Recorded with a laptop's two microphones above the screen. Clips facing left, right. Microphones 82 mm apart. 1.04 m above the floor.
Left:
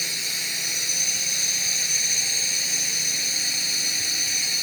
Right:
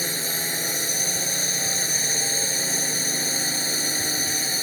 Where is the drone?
40° right (ahead or behind).